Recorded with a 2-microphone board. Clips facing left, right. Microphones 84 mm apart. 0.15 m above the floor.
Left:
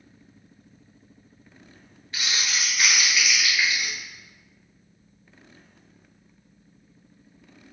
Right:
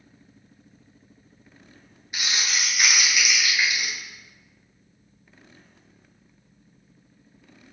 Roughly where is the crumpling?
Centre.